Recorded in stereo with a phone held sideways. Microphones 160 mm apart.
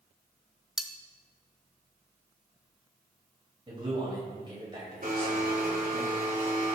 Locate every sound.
0.8 s cutlery clinking: 5° right (ahead or behind), 0.7 m
3.7 s a man speaking: 30° right (ahead or behind), 5 m
5.0 s a blender: 55° right (ahead or behind), 2.5 m